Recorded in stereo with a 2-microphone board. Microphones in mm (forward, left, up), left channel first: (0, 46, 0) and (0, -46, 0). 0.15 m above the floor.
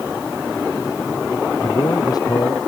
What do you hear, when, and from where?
1.6 s a man speaking: 45° left (ahead or behind)